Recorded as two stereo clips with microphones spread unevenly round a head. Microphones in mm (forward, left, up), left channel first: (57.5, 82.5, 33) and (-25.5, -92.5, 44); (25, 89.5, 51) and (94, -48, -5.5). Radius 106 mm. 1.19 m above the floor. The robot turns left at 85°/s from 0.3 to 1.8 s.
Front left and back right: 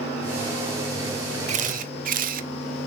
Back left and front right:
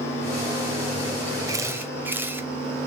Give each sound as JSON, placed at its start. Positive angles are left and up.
{"t": 1.5, "sound": "a camera shutter", "azimuth_deg": -75, "distance_m": 0.7}